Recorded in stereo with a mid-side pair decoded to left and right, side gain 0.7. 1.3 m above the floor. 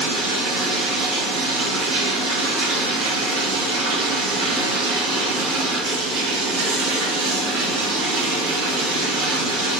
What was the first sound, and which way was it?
Running water, 70° right.